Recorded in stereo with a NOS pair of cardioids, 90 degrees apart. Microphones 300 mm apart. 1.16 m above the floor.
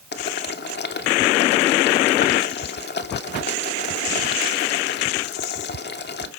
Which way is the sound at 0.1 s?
35° left.